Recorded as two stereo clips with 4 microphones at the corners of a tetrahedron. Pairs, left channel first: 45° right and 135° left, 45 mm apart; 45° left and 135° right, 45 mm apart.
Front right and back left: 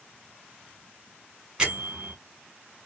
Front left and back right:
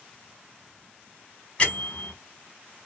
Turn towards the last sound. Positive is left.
turn(degrees=80)